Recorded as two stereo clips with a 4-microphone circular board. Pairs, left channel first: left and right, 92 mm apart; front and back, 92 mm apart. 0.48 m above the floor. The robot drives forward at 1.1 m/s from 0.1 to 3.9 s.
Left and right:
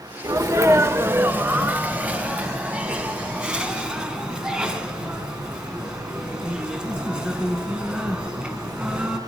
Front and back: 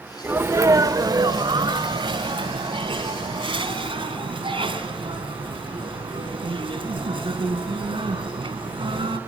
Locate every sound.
0.2 s a sneeze: 115° right, 1.2 m; by 9.2 s 170° right, 4.5 m